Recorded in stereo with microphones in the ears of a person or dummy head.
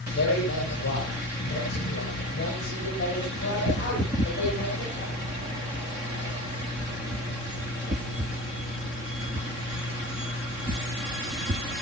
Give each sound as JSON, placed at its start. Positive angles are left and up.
{"t": 0.1, "sound": "a man speaking", "side_deg": 65, "distance_m": 8.5}